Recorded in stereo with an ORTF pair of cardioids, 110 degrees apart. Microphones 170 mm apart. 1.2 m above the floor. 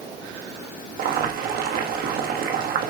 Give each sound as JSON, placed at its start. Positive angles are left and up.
{"t": 1.0, "sound": "boiling", "azimuth_deg": -65, "distance_m": 1.3}